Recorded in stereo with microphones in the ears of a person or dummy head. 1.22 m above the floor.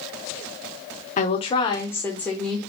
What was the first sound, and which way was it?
A woman speaking, 35° left (ahead or behind).